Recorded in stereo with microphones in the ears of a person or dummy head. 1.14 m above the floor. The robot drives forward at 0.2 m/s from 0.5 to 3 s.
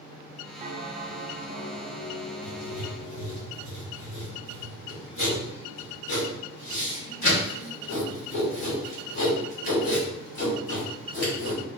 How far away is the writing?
About 2.0 m.